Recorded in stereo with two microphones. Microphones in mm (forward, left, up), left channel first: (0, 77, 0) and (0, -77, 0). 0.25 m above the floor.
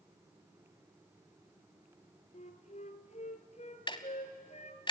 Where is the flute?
45° left (ahead or behind), 1.4 m.